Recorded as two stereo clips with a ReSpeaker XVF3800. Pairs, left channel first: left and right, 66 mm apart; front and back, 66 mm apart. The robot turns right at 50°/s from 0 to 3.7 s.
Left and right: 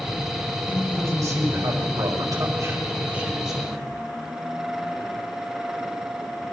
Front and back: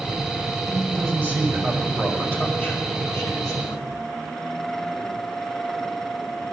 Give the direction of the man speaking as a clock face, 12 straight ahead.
5 o'clock.